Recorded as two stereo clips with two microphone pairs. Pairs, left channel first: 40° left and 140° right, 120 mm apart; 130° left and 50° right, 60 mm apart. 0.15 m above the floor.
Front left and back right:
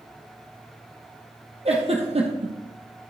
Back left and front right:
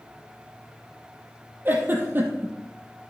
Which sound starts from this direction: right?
A giggle, at 1.6 s.